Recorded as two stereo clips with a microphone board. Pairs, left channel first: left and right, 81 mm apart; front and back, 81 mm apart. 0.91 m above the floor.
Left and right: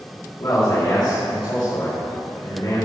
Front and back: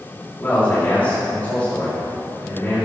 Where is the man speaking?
65° left, 2.5 m.